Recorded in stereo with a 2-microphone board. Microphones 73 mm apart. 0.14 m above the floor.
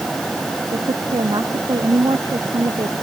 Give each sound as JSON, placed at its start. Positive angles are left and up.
{"t": 0.7, "sound": "a woman speaking", "side_deg": -75}